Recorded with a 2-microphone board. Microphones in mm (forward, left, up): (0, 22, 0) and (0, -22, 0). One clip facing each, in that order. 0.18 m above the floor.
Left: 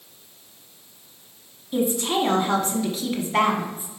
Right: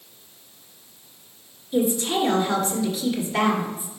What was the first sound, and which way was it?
A woman speaking, 35° left (ahead or behind).